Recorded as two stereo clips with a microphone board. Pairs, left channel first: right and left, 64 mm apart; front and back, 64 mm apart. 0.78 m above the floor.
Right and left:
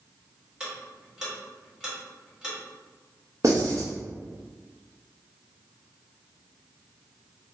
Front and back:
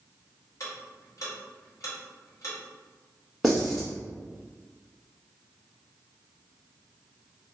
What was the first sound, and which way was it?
Ticking, 10° left.